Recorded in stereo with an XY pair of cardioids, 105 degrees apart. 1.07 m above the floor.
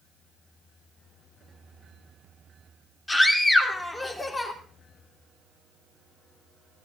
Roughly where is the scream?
Ahead left.